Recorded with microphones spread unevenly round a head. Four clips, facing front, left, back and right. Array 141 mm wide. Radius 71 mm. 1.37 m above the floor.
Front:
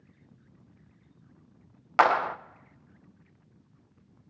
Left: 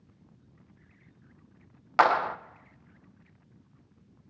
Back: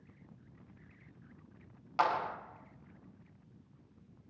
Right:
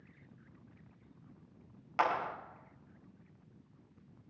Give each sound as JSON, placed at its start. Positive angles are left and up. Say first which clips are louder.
{"t": 2.0, "sound": "a clap", "louder": "left 10 dB, front 9 dB", "azimuth_deg": 40, "distance_m": 1.0}